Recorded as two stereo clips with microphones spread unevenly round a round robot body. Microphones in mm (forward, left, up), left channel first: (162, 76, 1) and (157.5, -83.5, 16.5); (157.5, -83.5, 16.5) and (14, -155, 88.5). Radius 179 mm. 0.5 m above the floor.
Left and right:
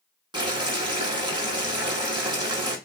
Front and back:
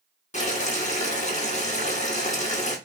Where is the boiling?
25° right, 1.3 m.